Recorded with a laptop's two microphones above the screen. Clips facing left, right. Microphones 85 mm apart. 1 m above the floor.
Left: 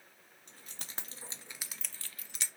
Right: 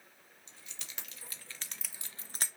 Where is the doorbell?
I don't hear a doorbell.